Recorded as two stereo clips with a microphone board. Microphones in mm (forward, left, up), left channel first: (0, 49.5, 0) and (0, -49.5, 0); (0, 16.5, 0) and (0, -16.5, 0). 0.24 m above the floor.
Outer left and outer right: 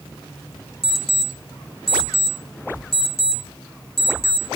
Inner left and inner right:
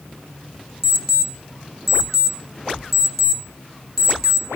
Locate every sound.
0.8 s an alarm clock: 5° left (ahead or behind), 3 m